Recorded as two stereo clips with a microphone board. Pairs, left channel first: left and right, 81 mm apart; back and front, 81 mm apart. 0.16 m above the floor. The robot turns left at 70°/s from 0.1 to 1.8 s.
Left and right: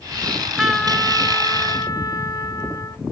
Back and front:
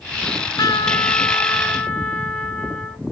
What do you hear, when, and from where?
0.2 s a trumpet: 145° right, 1.2 m; by 3.0 s 105° left, 1.2 m